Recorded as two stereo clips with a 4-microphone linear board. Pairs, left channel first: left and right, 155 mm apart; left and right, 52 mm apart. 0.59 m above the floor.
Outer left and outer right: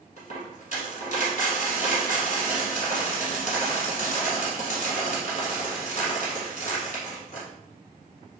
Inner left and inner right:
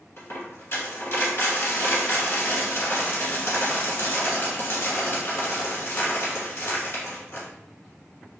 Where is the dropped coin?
50° left (ahead or behind), 1.1 m.